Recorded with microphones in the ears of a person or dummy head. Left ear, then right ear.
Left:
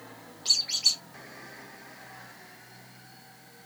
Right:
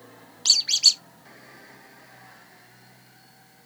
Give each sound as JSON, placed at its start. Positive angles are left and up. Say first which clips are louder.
{"t": 0.5, "sound": "a squeak", "louder": "right 6 dB", "side_deg": -65, "distance_m": 0.7}